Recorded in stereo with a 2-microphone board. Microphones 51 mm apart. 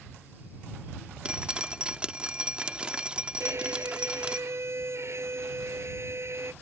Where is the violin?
60° right (ahead or behind).